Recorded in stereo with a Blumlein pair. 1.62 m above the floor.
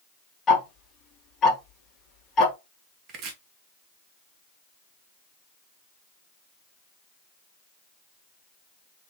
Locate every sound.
0.5 s ticking: 20° left, 2 m
3.1 s chopping: 35° right, 1.3 m